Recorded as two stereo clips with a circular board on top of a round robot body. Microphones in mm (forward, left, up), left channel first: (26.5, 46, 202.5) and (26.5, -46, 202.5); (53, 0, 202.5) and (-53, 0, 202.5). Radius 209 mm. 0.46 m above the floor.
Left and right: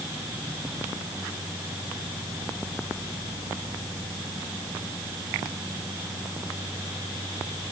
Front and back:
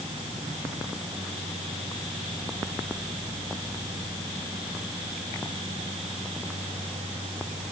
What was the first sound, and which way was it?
Only background noise.